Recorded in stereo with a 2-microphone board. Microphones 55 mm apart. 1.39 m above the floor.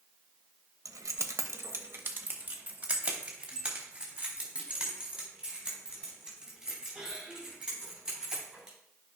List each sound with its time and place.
0.8 s keys jangling: 70° right (ahead or behind), 1.0 m; by 8.8 s 10° right (ahead or behind), 8 m